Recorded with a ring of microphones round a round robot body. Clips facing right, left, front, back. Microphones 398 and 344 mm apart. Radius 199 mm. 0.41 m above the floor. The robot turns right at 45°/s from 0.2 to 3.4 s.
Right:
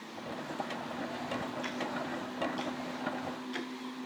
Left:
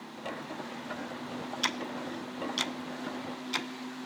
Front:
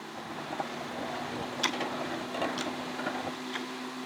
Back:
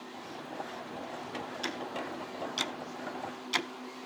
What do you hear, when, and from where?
1.6 s ticking: 65° left, 0.7 m; by 4.0 s 145° left, 0.7 m